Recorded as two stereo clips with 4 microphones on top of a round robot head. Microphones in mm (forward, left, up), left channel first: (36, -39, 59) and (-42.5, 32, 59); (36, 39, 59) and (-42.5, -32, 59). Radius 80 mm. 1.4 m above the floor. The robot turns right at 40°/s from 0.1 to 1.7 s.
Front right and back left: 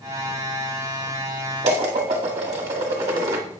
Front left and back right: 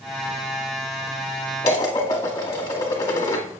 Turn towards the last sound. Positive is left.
turn(degrees=100)